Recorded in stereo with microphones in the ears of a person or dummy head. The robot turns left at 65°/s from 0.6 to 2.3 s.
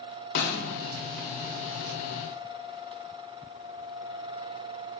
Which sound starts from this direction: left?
A snare drum, at 0.3 s.